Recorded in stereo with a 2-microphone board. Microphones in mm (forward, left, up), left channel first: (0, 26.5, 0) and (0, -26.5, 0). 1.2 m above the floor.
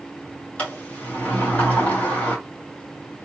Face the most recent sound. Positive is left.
turn(degrees=30)  # may be behind; listen again after turning